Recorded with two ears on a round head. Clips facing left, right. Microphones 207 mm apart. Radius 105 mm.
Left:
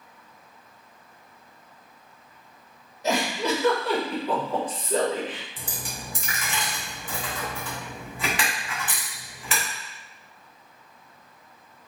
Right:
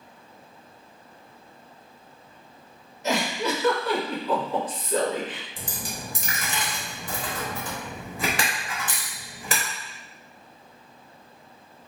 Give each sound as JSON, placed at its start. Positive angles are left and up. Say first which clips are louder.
{"t": 3.0, "sound": "a giggle", "louder": "left 1 dB", "side_deg": 30, "distance_m": 1.3}
{"t": 5.6, "sound": "a dropped coin", "louder": "right 2 dB", "side_deg": -35, "distance_m": 0.8}